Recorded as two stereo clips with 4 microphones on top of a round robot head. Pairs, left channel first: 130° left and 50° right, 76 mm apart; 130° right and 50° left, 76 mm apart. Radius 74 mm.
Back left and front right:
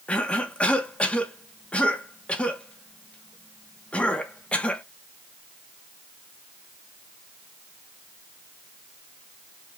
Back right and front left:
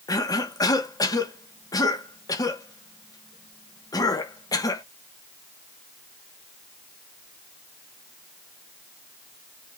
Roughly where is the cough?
Behind right.